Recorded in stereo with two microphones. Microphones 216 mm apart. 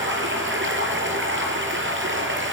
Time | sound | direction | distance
0.0 | running water | 60° right (ahead or behind) | 4.5 m